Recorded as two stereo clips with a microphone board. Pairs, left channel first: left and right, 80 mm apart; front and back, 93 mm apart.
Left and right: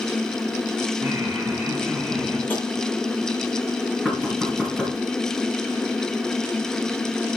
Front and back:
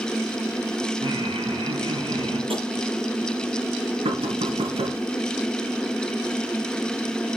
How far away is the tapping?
About 6.5 m.